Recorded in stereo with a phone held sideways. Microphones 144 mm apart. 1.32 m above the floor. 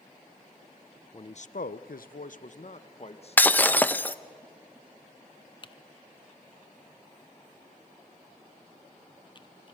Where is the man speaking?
35° left (ahead or behind), 0.6 m; by 3.8 s 40° left (ahead or behind), 1.9 m.